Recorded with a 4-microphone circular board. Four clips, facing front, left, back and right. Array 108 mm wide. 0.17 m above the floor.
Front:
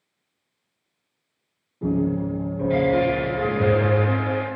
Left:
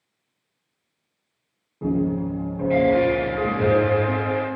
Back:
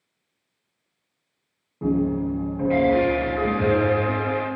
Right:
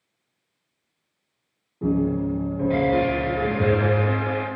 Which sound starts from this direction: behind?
A piano, at 1.8 s.